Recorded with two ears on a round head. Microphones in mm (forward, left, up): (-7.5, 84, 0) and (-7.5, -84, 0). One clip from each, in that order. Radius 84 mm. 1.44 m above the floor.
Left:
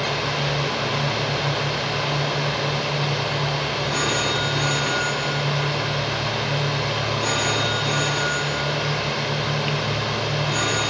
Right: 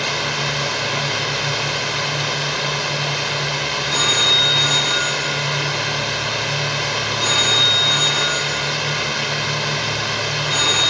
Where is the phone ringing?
25° right (ahead or behind).